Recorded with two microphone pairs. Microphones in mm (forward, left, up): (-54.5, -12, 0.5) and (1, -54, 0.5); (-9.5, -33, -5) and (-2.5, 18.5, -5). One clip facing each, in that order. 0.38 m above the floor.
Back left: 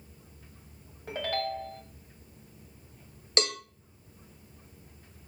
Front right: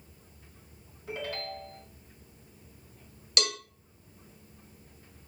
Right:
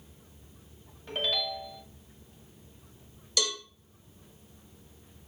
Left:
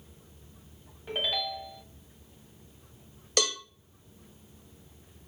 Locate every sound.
1.1 s a ringtone: 160° left, 1.7 m
3.4 s a cowbell: 95° left, 1.2 m